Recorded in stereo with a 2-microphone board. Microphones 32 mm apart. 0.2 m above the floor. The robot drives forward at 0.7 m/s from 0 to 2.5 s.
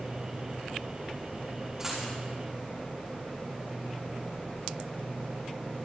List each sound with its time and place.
1.8 s a dropped coin: 20° right (ahead or behind), 7 m